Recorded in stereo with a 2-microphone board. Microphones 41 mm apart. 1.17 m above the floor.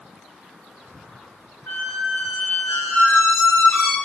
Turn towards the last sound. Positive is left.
turn(degrees=85)